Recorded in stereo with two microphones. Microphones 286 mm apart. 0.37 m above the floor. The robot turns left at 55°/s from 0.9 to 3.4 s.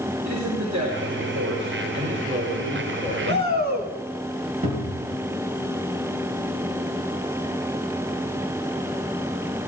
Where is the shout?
40° right (ahead or behind), 3 m; by 3.9 s 35° right (ahead or behind), 3 m.